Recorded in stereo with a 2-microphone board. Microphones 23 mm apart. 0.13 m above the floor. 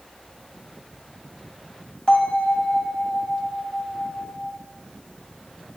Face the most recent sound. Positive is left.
turn(degrees=30)  # may be behind; listen again after turning